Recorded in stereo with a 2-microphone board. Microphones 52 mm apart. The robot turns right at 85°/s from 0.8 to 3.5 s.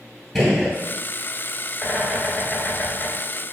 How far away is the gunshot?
About 0.9 m.